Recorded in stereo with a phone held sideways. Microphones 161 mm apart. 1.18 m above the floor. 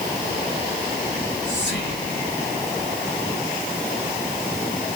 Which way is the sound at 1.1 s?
80° left.